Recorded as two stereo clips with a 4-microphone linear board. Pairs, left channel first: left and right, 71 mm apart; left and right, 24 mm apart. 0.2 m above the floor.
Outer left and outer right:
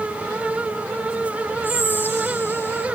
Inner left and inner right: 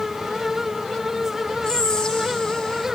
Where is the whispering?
30° left (ahead or behind), 7 m.